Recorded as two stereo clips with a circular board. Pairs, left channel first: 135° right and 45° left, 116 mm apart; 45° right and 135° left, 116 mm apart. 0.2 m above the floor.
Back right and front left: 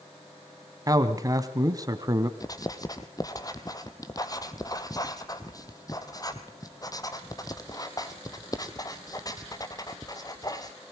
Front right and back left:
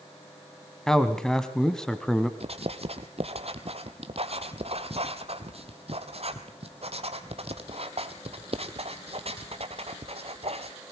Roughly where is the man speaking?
Ahead left.